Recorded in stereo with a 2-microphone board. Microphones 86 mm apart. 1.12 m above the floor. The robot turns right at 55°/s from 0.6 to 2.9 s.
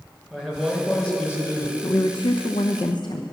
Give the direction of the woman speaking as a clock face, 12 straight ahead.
10 o'clock.